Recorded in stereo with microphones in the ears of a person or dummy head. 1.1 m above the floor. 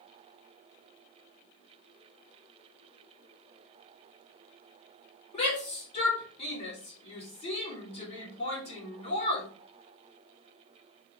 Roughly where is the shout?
Left.